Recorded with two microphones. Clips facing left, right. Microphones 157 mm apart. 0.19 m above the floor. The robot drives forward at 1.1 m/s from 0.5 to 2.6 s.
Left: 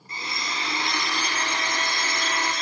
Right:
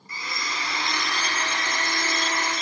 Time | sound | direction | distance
0.1 | a blender | 25° left (ahead or behind) | 1.4 m